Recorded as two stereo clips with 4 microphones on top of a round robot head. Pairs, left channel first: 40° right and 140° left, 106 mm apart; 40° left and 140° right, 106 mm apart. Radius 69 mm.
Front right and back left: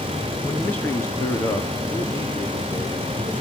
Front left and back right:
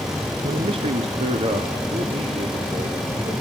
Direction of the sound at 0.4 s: 120° right.